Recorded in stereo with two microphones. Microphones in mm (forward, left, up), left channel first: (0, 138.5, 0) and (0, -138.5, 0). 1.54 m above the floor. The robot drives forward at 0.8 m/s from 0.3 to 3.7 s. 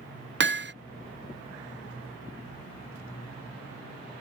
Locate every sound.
0.4 s hammering: 45° right (ahead or behind); by 0.7 s 40° right (ahead or behind)